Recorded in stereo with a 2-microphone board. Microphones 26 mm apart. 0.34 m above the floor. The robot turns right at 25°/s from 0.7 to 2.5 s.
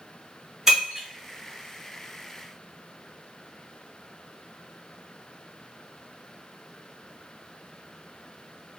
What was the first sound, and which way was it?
Breaking glass, 15° right (ahead or behind).